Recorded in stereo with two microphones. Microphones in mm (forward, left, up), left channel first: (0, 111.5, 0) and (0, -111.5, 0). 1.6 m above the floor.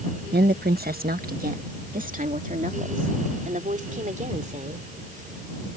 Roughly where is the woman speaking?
Right.